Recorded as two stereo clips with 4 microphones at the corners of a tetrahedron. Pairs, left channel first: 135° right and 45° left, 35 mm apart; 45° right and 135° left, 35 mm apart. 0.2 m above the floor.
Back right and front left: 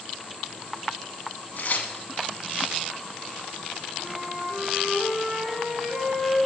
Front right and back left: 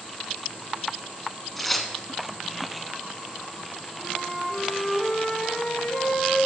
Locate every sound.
1.6 s tearing paper: 130° right, 0.5 m
4.0 s a flute: 15° right, 1.9 m